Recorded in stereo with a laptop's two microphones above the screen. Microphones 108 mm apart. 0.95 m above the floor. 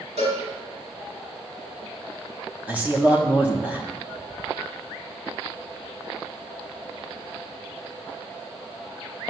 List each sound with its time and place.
0.2 s a cowbell: 80° right, 3 m
2.7 s a man speaking: 15° right (ahead or behind), 0.9 m